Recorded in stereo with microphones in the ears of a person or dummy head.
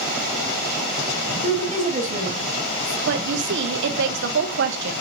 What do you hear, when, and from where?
1.4 s a woman speaking: 40° right (ahead or behind), 1.7 m
3.1 s a woman speaking: 65° right (ahead or behind), 0.9 m